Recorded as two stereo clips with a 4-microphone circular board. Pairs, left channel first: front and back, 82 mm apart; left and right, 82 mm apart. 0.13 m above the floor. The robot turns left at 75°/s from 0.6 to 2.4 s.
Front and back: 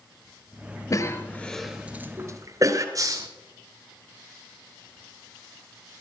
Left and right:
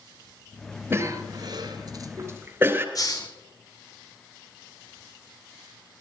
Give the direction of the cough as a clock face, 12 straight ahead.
1 o'clock.